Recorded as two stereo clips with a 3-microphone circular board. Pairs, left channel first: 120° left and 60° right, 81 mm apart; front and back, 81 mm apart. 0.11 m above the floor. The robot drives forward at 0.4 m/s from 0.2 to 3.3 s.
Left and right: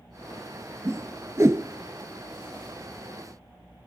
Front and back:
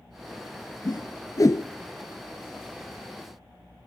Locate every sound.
0.8 s a whoosh: 15° right, 0.7 m; by 1.6 s 30° right, 0.5 m